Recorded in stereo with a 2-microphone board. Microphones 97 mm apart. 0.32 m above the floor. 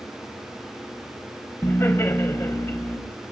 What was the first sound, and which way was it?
Laughter, 30° left (ahead or behind).